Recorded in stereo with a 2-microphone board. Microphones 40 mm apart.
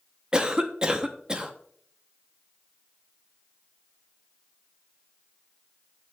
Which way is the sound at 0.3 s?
20° right (ahead or behind).